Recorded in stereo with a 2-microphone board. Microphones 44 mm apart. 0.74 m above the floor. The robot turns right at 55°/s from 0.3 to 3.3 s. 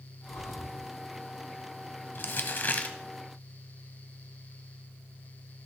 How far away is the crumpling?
About 0.8 m.